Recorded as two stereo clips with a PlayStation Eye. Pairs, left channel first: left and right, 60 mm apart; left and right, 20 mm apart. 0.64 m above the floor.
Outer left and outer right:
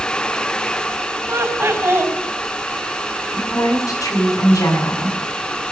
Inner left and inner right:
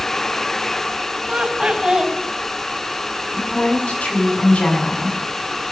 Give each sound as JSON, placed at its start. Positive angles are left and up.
{"t": 1.3, "sound": "laughter", "side_deg": -45, "distance_m": 4.0}
{"t": 3.3, "sound": "a woman speaking", "side_deg": 75, "distance_m": 5.5}